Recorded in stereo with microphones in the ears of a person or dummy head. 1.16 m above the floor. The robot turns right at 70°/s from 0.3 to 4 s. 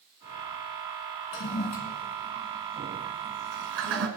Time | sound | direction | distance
1.3 | a toilet flushing | 70° left (ahead or behind) | 3 m